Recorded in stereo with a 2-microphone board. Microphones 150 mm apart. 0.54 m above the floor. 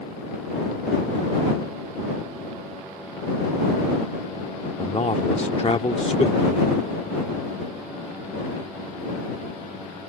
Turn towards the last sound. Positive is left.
turn(degrees=45)  # may be behind; listen again after turning